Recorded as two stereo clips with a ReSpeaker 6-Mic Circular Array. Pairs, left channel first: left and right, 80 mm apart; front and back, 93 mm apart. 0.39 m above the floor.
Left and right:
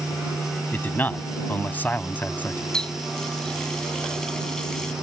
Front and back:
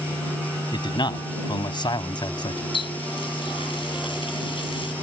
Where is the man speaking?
25° left.